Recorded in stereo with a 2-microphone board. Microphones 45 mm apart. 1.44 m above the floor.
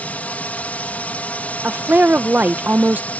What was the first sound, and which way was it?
A drone, 30° left (ahead or behind).